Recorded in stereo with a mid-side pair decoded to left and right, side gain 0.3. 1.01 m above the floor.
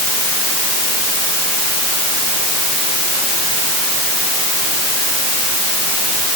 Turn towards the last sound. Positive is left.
No sound to turn to.